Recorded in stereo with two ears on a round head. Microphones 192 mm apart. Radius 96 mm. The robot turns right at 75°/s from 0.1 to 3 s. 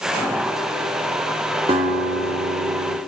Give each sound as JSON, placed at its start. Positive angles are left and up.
{"t": 1.7, "sound": "a guitar", "azimuth_deg": -155, "distance_m": 1.8}